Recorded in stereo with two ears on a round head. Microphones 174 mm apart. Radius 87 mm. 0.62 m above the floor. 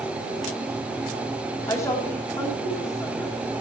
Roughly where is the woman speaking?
Centre.